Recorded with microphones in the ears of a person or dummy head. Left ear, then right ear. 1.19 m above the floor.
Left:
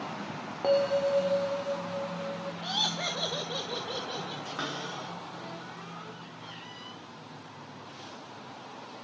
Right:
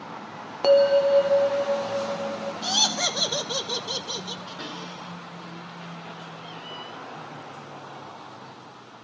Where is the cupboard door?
65° left (ahead or behind), 9.5 m.